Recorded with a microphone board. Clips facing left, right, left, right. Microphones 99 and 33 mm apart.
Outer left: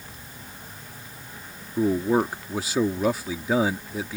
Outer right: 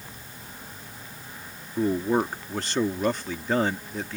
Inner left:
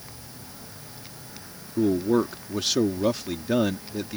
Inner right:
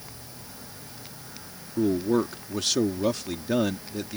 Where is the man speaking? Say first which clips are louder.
Outer left 2 dB, inner left 2 dB; 5° left (ahead or behind).